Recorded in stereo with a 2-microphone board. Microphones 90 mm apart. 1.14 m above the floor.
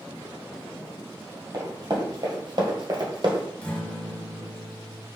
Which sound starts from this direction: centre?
A guitar, at 3.6 s.